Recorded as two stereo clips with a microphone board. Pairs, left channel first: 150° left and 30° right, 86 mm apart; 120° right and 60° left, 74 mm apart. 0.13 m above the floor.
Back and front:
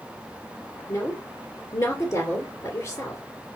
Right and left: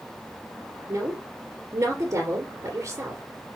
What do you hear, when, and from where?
0.9 s a woman speaking: 100° left, 2.5 m